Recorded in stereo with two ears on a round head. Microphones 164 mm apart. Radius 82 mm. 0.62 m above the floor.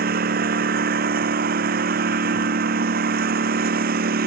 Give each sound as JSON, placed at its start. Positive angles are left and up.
{"t": 0.0, "sound": "a lawn mower", "side_deg": -55}